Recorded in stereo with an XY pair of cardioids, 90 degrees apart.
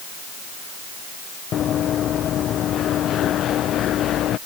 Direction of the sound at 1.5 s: 70° left.